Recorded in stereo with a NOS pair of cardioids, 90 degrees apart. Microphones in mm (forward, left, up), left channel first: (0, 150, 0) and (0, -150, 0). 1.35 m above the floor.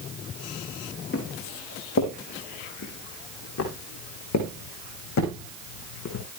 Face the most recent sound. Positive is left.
turn(degrees=75)